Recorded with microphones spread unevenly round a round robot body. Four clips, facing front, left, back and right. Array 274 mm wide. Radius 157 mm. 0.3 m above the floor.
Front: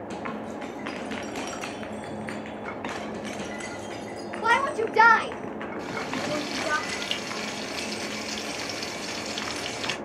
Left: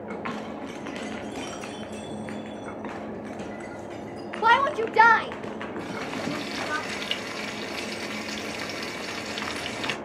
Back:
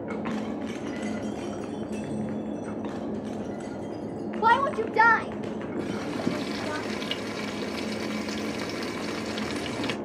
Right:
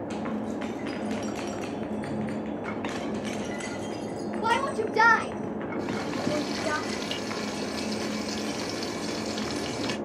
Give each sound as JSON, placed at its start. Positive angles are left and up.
{"t": 4.4, "sound": "a shout", "azimuth_deg": 135, "distance_m": 1.0}
{"t": 5.8, "sound": "frying", "azimuth_deg": -150, "distance_m": 0.5}